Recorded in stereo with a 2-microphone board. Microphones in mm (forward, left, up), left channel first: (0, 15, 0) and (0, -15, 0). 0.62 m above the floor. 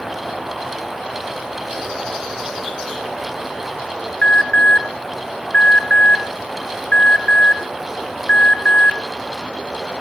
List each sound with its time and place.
4.2 s an alarm: 35° left (ahead or behind), 1.3 m